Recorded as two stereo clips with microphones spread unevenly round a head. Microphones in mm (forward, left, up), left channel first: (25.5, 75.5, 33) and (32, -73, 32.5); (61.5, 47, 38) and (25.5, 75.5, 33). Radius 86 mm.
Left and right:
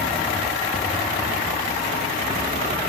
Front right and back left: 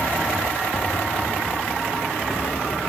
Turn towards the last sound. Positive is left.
turn(degrees=25)